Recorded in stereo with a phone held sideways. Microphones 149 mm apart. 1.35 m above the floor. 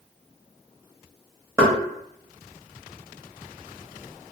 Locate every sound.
1.6 s knocking: 15° right (ahead or behind), 1.1 m